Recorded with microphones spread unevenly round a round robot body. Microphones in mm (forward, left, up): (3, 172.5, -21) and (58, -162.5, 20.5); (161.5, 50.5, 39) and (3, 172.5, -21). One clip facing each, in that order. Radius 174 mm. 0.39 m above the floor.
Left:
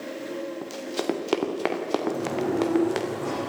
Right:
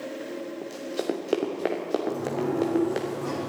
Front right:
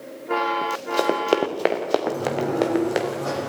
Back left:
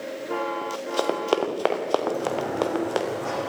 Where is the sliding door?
10° left, 5.5 m.